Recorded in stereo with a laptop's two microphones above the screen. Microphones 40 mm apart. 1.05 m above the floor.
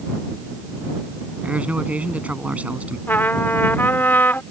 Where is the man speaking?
35° right (ahead or behind).